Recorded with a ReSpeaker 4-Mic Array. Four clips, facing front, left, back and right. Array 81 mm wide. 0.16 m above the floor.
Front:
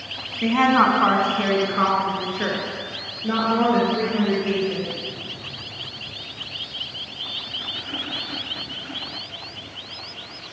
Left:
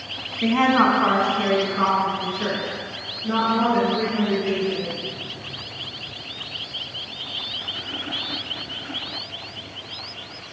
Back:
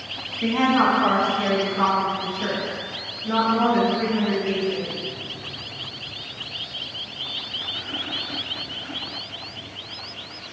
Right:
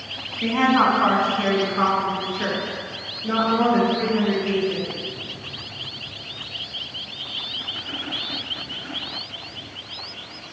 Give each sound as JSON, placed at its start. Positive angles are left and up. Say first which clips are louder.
{"t": 0.4, "sound": "a woman speaking", "louder": "left 1 dB, front 2 dB", "azimuth_deg": 25, "distance_m": 1.2}